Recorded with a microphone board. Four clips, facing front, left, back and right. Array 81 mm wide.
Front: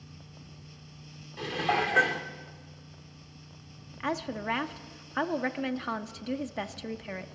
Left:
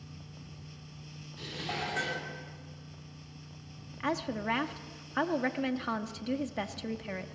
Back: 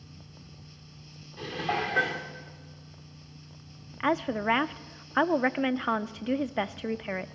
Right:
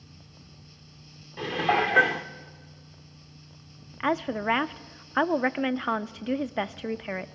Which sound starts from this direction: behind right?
A woman speaking, at 4.0 s.